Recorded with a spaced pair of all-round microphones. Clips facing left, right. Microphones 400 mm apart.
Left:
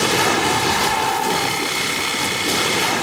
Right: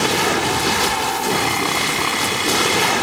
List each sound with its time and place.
1.3 s sawing: 80° right